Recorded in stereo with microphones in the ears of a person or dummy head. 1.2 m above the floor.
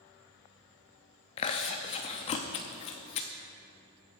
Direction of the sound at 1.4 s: 30° left (ahead or behind).